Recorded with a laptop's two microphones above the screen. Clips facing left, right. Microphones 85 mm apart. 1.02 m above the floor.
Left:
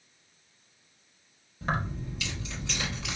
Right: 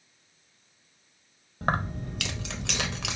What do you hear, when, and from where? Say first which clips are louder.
1.6 s keys jangling: right 3 dB; 50° right (ahead or behind), 1.0 m; by 3.2 s 75° right (ahead or behind), 1.0 m